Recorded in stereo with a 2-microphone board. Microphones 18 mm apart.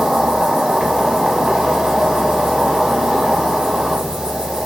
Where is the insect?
70° right (ahead or behind), 1.2 m.